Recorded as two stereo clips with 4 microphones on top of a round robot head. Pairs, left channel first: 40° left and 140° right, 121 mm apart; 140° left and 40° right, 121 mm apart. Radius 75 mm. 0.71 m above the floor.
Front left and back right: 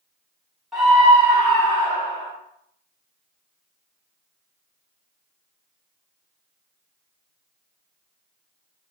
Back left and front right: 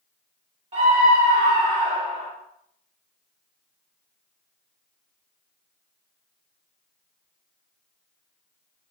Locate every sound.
0.7 s a scream: 55° right, 1.7 m; by 2.3 s 20° right, 1.9 m